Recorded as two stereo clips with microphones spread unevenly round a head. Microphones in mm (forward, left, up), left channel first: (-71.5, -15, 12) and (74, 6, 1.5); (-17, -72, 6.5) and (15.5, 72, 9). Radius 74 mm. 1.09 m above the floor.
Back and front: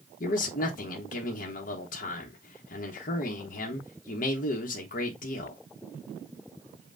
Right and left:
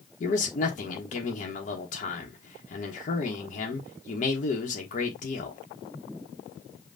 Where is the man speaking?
140° right, 0.9 m.